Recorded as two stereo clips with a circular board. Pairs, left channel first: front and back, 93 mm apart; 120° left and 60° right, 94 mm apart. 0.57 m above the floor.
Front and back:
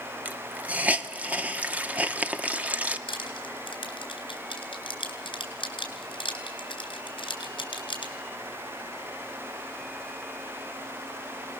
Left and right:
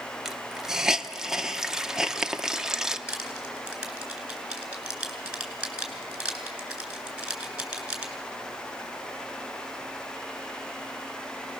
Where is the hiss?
135° right, 0.8 m.